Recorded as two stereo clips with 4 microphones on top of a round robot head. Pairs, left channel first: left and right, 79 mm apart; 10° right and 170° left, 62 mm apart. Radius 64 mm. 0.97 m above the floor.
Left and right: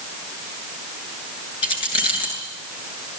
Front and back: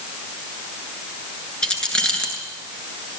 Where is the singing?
No singing in this recording.